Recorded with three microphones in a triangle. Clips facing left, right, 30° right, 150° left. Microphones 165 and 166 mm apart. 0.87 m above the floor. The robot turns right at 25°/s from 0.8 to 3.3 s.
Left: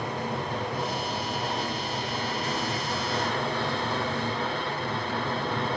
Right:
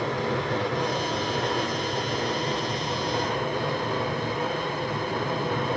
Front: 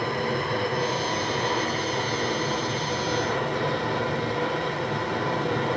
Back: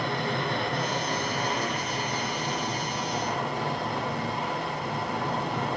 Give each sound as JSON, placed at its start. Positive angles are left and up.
{"t": 0.0, "sound": "running water", "azimuth_deg": -75, "distance_m": 4.5}